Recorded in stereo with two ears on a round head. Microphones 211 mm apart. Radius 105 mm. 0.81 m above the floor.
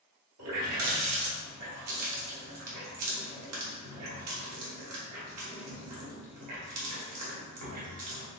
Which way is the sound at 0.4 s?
80° right.